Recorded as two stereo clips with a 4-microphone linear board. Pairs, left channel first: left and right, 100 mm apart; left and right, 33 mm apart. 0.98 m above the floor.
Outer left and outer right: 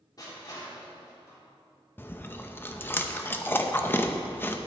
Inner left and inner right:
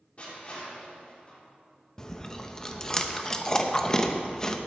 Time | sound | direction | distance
0.2 | crushing | 40° left (ahead or behind) | 3.5 m
2.0 | chewing | 20° left (ahead or behind) | 0.7 m